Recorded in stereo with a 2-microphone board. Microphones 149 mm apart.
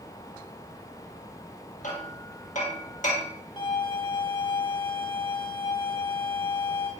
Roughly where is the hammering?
Left.